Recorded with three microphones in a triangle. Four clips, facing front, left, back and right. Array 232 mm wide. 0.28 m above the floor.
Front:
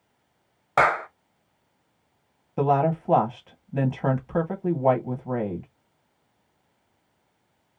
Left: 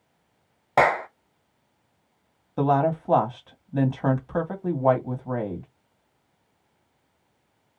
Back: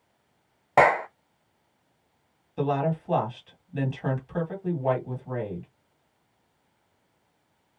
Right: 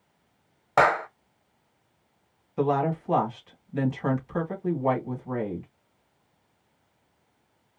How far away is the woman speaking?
About 2 m.